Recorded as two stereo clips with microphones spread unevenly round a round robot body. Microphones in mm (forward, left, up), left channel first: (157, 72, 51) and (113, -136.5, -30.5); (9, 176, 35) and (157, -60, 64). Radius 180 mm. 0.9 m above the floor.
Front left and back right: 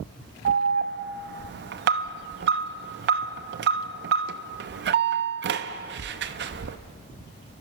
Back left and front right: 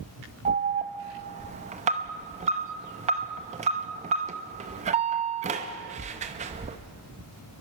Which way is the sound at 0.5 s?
130° right.